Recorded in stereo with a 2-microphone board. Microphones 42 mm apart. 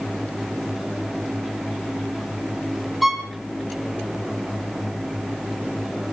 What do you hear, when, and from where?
3.0 s a violin: 5° right (ahead or behind), 3 m